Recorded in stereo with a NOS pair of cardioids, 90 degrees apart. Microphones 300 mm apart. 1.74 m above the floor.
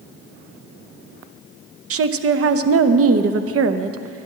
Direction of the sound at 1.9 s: 50° right.